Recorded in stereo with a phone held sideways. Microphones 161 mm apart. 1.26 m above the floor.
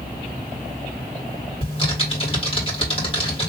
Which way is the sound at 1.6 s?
30° left (ahead or behind).